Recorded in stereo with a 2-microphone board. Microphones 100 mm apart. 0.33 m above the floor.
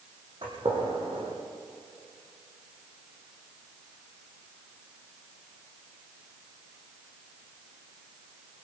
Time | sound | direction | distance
0.4 | a gunshot | 60° right (ahead or behind) | 7 m